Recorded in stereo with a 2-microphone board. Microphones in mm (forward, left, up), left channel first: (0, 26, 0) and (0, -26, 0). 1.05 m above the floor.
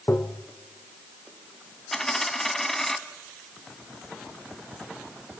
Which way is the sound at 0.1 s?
55° left (ahead or behind).